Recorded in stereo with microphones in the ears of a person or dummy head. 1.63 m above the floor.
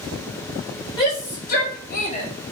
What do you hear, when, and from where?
1.0 s a shout: 30° left (ahead or behind), 1.4 m